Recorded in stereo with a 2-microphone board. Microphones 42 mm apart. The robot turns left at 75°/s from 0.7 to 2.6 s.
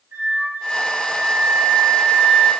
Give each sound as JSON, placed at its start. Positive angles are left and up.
{"t": 0.1, "sound": "a flute", "azimuth_deg": -65, "distance_m": 2.0}